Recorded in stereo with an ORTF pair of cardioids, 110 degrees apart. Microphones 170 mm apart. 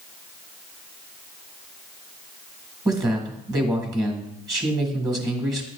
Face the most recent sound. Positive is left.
turn(degrees=-25)